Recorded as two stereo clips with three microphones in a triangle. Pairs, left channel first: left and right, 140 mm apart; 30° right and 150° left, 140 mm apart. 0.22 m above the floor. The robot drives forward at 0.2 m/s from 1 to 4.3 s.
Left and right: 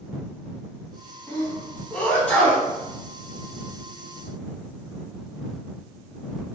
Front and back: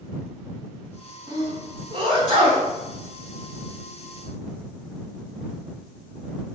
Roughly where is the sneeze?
Behind.